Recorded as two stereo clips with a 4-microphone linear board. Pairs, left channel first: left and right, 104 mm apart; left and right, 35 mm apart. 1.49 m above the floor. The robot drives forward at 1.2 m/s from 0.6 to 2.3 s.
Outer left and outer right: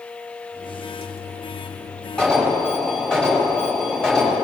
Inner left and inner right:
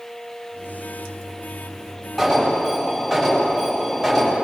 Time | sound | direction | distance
2.2 | an alarm | 5° left (ahead or behind) | 8 m